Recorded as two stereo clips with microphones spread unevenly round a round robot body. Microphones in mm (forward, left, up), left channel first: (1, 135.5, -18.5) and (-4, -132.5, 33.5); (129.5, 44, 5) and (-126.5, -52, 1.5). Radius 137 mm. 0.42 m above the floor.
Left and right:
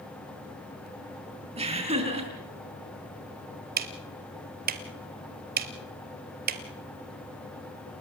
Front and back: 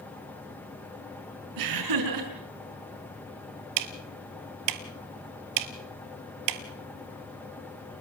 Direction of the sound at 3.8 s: 145° right.